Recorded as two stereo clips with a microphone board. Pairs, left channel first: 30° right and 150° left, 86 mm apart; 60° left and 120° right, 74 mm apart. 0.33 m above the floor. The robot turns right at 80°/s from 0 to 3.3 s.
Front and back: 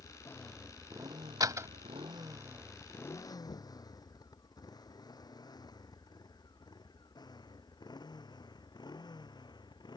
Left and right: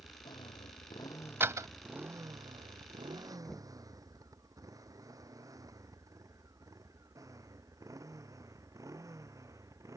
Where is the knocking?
25° right.